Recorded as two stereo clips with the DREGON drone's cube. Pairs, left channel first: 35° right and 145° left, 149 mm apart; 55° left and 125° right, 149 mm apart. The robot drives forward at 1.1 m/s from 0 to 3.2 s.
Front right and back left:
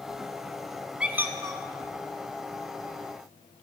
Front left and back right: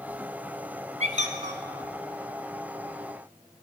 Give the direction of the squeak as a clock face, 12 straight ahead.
4 o'clock.